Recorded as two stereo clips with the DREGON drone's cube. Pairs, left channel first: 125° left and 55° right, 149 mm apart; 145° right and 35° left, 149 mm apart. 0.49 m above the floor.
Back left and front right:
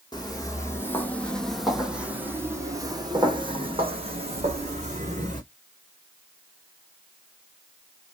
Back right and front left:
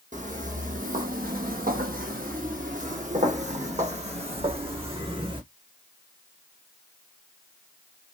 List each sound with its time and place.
0.1 s footsteps: 65° left, 1.6 m; by 5.4 s 20° right, 2.5 m